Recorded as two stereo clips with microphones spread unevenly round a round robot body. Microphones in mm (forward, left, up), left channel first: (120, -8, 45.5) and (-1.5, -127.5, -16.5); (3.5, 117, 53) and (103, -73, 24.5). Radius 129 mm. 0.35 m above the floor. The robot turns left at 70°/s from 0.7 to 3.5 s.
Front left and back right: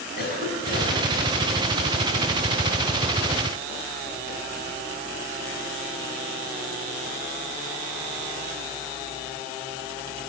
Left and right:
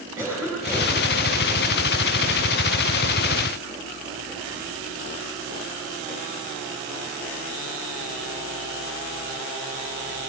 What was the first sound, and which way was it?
A cough, 15° left.